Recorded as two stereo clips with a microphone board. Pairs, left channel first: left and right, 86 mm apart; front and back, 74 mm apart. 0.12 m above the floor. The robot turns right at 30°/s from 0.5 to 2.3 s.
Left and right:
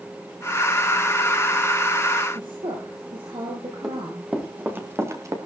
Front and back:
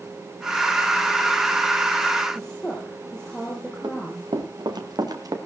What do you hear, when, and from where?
2.4 s a woman speaking: 80° right, 4 m
3.8 s running footsteps: 175° right, 3 m; by 5.3 s 140° right, 2.5 m